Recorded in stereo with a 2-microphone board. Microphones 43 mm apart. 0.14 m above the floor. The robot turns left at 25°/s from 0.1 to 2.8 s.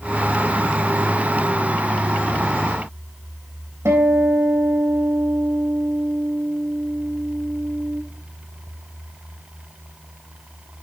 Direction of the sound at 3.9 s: 75° right (ahead or behind).